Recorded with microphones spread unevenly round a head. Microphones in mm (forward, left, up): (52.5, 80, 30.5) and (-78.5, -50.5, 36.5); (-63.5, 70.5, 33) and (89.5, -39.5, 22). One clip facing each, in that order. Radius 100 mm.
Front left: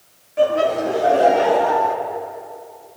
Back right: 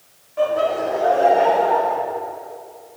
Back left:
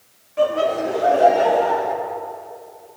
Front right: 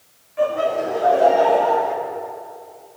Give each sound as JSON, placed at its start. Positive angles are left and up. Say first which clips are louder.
{"t": 0.4, "sound": "laughter", "louder": "front left 2 dB, back left 1 dB", "azimuth_deg": 105, "distance_m": 2.5}